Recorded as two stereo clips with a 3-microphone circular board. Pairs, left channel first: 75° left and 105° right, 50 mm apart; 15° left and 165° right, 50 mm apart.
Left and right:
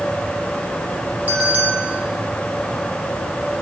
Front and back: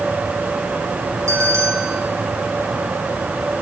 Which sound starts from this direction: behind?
A bell, at 1.3 s.